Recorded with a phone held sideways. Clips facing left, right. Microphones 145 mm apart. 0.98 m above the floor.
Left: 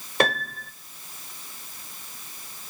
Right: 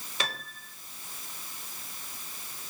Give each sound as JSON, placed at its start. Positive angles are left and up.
{"t": 0.2, "sound": "a piano", "side_deg": 60, "distance_m": 0.7}